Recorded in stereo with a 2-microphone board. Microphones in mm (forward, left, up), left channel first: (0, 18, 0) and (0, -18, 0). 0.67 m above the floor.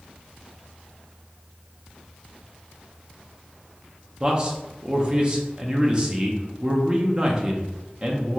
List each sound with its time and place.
4.2 s a man speaking: 25° right (ahead or behind), 0.5 m